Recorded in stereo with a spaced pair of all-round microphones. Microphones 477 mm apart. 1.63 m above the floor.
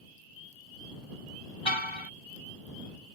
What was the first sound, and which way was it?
A car horn, 75° left (ahead or behind).